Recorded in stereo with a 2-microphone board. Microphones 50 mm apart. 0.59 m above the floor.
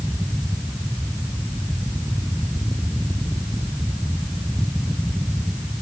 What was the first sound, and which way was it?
Only background noise.